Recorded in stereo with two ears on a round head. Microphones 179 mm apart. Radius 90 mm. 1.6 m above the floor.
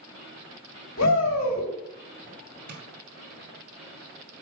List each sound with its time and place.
1.0 s a shout: 75° left (ahead or behind), 3 m
2.7 s tapping: 50° right (ahead or behind), 2 m